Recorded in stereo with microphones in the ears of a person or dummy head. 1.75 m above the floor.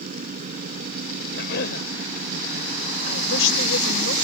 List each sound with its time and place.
0.0 s a fan: 45° right (ahead or behind)
1.3 s a cough: 70° left (ahead or behind)
3.1 s a woman speaking: 75° left (ahead or behind)